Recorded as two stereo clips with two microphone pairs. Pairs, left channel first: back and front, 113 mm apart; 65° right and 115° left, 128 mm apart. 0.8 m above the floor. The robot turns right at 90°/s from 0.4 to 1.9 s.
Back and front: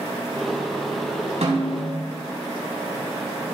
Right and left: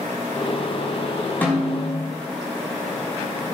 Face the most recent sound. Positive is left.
turn(degrees=55)